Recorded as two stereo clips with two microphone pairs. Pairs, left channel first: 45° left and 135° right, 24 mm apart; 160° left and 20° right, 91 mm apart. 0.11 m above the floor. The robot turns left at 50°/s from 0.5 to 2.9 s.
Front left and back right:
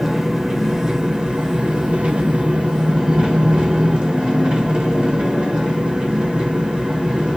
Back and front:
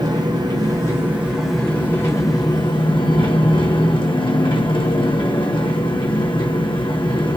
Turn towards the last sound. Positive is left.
turn(degrees=180)